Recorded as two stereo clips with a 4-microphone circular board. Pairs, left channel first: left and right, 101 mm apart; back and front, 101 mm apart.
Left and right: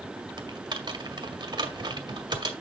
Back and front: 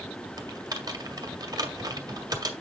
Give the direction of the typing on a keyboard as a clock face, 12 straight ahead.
2 o'clock.